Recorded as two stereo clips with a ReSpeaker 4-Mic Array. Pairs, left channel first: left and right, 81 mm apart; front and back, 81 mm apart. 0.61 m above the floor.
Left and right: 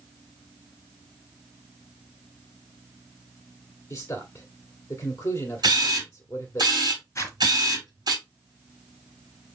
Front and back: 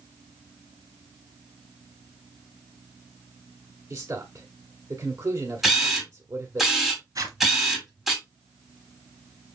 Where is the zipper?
145° left, 1.7 m.